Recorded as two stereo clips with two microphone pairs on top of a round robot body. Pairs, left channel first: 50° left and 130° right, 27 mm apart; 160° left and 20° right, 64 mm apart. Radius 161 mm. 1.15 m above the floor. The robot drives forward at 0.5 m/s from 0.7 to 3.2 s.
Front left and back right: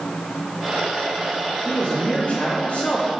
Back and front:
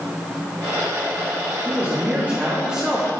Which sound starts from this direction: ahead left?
A man speaking, at 1.6 s.